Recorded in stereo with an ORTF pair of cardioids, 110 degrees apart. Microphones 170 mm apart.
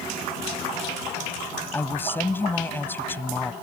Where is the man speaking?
10° left.